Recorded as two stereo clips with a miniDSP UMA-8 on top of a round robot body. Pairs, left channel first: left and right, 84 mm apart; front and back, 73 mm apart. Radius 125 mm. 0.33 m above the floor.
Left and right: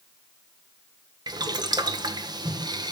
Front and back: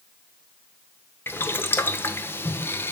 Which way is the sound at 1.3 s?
60° right.